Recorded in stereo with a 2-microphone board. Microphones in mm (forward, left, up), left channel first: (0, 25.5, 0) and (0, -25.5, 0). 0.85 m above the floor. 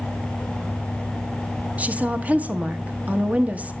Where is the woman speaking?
30° right (ahead or behind), 0.8 m.